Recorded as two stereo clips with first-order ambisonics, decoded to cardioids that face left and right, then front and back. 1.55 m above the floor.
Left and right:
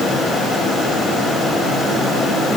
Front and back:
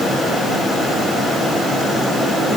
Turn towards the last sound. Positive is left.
No sound to turn to.